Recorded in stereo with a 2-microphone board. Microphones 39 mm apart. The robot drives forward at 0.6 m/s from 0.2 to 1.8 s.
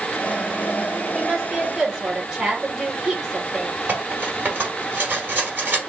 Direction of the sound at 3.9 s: 50° right (ahead or behind).